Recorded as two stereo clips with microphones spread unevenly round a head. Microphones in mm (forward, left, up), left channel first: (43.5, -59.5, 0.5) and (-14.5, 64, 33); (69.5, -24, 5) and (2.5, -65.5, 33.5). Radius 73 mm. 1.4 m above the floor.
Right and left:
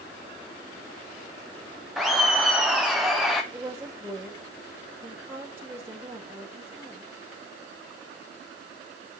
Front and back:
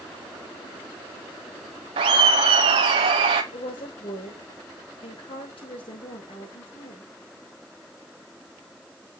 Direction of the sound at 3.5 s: 35° left.